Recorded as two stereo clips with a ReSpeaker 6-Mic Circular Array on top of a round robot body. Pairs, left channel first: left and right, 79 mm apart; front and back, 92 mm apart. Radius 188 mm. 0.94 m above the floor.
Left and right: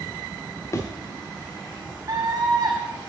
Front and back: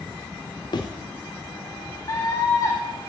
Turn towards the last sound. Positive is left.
turn(degrees=-45)